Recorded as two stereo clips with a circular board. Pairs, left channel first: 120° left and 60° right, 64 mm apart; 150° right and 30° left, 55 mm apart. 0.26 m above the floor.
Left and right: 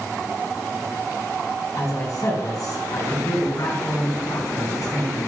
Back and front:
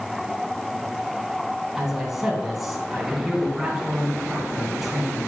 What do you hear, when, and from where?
1.8 s a man speaking: 115° left, 2 m